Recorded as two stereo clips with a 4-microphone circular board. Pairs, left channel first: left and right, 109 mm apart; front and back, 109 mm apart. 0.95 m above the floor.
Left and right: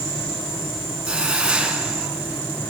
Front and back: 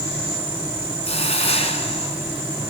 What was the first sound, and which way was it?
A hiss, 10° right.